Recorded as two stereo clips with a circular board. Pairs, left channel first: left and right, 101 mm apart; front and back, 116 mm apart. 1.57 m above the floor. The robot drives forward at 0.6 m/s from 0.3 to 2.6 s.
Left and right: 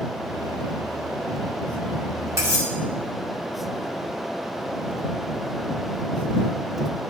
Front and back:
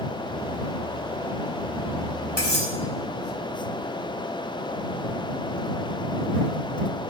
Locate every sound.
2.4 s cutlery clinking: 150° right, 3 m